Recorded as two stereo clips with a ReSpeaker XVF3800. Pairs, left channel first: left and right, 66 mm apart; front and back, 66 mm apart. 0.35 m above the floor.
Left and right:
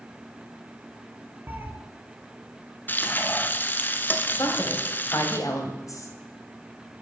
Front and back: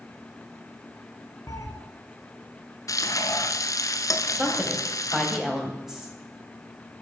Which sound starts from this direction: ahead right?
A cat meowing, at 1.5 s.